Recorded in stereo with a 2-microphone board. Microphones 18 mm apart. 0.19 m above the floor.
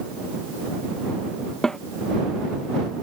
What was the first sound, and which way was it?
A snare drum, 30° left (ahead or behind).